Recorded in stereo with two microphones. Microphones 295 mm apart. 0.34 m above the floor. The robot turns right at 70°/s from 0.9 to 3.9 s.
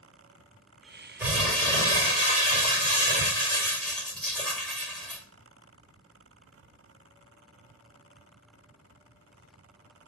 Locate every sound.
1.2 s crumpling: 5° right (ahead or behind), 1.6 m; by 5.2 s 5° left (ahead or behind), 1.6 m